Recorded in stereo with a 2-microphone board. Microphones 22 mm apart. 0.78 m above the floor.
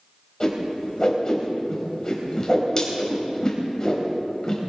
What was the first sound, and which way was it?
A whoosh, 35° left (ahead or behind).